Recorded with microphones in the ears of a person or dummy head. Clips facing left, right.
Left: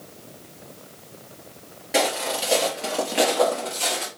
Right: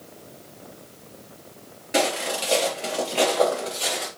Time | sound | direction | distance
1.9 | footsteps | 5° right (ahead or behind) | 1.8 m